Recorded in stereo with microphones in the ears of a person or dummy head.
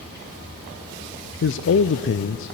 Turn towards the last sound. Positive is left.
turn(degrees=55)  # may be behind; listen again after turning